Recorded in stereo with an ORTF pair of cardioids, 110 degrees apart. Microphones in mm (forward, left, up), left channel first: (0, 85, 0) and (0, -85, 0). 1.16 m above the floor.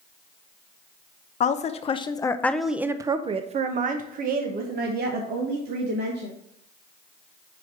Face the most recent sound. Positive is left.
turn(degrees=-80)